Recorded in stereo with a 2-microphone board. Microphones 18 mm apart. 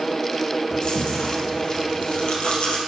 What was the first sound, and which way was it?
Chewing, 70° left (ahead or behind).